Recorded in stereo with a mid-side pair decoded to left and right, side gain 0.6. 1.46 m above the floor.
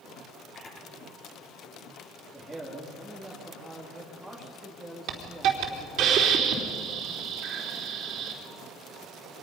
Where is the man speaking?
5° right, 3 m.